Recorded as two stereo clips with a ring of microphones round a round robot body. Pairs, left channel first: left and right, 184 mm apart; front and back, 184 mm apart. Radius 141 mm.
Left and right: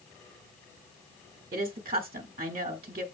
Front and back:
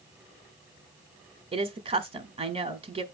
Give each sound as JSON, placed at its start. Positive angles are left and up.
{"t": 1.5, "sound": "a woman speaking", "azimuth_deg": -135, "distance_m": 1.4}